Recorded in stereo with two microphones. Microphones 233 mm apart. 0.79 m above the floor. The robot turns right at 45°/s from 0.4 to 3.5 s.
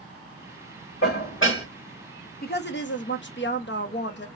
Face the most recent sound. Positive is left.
turn(degrees=105)